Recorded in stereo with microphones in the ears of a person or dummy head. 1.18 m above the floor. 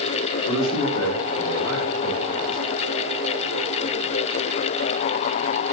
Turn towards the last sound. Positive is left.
turn(degrees=90)